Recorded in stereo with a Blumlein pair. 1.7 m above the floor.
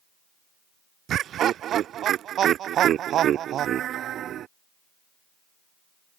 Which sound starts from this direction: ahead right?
Laughter, at 1.1 s.